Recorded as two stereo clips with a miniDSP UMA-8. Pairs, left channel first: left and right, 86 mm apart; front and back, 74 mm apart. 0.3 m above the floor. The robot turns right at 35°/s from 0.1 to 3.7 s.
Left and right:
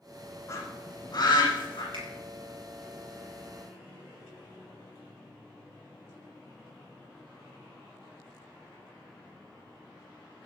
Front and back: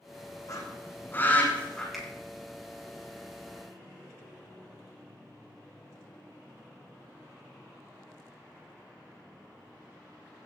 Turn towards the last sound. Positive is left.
turn(degrees=-30)